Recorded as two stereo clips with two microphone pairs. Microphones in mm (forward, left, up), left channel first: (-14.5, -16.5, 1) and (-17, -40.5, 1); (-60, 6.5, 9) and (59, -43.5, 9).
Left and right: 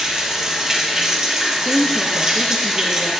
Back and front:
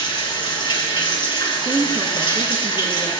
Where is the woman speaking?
10° left, 1.2 m.